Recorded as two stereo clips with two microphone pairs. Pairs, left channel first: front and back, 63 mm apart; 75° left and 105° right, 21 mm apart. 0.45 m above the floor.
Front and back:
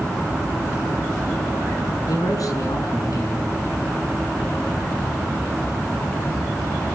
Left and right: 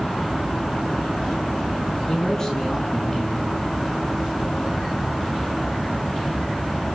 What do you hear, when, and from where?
2.1 s a man speaking: 15° left, 6 m